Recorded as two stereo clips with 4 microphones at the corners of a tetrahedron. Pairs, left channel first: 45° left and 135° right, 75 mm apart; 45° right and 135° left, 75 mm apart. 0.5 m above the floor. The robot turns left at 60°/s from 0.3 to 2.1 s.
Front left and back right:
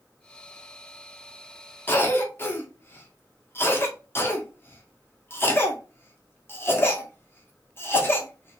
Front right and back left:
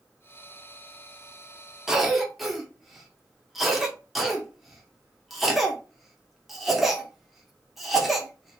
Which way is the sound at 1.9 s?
65° left.